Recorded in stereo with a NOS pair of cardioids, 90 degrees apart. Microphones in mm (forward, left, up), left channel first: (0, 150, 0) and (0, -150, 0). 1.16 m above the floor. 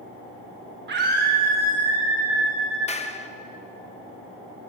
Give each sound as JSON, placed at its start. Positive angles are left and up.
{"t": 0.9, "sound": "a scream", "azimuth_deg": -40, "distance_m": 1.4}
{"t": 2.9, "sound": "a clap", "azimuth_deg": 20, "distance_m": 0.9}